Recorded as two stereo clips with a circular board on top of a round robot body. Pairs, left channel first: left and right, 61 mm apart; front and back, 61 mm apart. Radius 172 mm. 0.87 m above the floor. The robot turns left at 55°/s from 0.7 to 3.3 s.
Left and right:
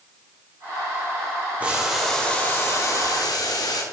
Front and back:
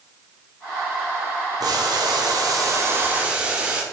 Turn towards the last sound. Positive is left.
turn(degrees=110)